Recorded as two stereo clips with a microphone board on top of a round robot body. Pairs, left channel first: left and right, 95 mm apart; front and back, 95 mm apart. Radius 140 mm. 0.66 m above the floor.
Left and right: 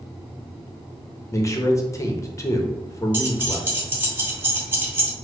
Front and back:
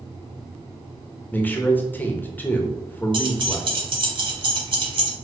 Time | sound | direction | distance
1.3 | a man speaking | 60° left | 1.0 m
3.1 | keys jangling | 160° right | 1.2 m